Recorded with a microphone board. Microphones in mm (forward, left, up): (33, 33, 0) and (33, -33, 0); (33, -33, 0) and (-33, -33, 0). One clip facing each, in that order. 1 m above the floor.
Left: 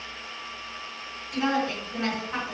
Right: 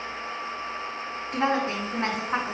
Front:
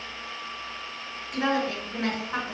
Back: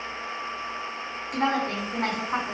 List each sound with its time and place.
1.3 s a woman speaking: 140° right, 3.5 m